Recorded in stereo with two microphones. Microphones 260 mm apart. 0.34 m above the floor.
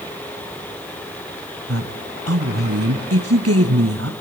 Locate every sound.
1.7 s a woman speaking: 65° right (ahead or behind), 2.5 m